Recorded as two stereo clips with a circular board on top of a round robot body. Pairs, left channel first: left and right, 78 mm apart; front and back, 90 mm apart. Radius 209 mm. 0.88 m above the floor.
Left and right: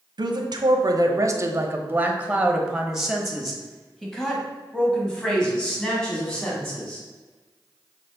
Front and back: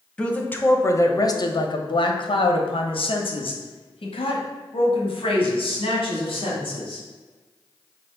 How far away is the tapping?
No tapping in this recording.